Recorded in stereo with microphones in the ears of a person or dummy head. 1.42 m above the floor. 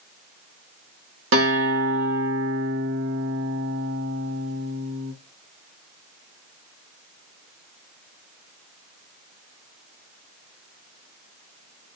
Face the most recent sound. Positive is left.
turn(degrees=-65)  # may be behind; listen again after turning